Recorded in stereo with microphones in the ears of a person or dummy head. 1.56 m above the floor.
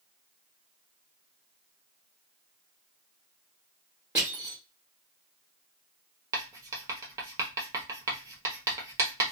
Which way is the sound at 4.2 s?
10° right (ahead or behind).